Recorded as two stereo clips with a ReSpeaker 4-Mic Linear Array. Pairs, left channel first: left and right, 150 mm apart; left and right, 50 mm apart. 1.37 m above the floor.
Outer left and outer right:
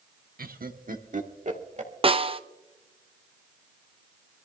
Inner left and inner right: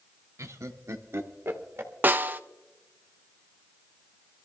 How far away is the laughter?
About 1.1 m.